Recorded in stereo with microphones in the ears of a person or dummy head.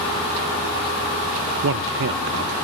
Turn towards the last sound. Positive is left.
turn(degrees=-70)  # may be behind; listen again after turning